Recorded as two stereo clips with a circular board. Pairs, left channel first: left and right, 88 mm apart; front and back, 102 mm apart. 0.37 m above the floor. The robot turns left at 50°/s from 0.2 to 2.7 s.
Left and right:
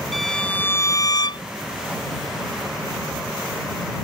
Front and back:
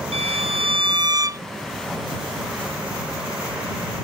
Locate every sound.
0.1 s a violin: straight behind; by 1.4 s 115° left